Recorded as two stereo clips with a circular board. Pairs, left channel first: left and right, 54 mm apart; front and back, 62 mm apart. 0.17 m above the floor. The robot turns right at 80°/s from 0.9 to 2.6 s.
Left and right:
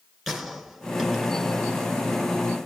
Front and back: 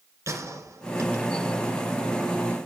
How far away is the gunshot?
About 2.5 m.